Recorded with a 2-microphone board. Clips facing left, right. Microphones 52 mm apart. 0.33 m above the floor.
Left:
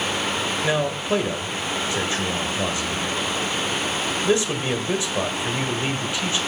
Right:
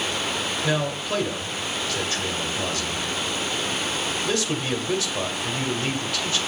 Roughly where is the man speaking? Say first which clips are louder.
Left 3 dB; left.